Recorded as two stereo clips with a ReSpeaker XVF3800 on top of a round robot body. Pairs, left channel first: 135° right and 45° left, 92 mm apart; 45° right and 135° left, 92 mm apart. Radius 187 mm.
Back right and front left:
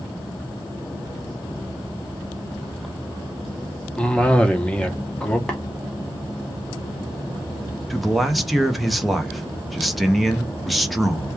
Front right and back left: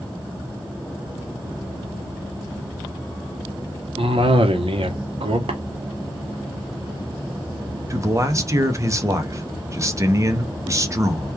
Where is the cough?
145° left, 0.8 m.